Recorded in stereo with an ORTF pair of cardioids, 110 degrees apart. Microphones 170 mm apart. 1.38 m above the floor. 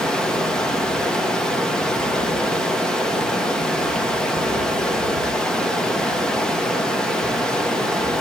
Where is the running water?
5° left, 1.0 m.